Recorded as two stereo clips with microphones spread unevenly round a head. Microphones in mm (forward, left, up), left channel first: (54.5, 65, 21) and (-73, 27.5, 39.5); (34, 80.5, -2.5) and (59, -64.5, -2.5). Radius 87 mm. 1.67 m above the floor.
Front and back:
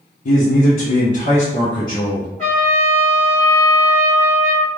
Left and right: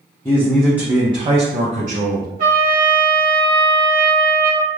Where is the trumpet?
75° right, 1.3 m.